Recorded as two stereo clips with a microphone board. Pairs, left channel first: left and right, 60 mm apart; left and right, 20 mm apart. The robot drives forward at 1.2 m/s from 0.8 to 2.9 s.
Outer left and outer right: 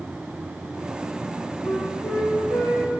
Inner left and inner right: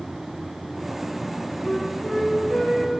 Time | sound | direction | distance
1.6 | a flute | 80° left | 4 m